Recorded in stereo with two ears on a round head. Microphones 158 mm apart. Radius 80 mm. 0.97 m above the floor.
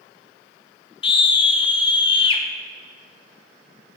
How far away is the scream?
About 1.1 m.